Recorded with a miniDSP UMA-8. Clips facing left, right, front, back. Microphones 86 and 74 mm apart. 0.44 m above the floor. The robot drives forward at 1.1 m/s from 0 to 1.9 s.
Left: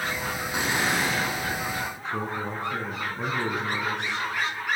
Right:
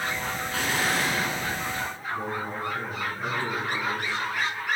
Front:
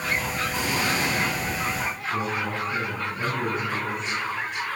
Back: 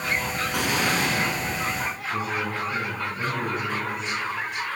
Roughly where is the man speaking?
Left.